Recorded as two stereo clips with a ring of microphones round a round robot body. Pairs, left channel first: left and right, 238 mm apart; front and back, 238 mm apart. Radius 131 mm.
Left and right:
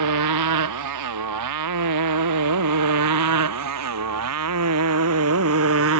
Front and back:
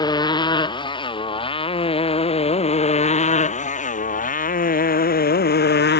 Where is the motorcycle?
75° right; by 6.0 s 45° right.